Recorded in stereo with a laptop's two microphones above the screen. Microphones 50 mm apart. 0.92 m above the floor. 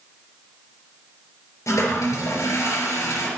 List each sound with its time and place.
1.7 s a toilet flushing: 65° left (ahead or behind), 4 m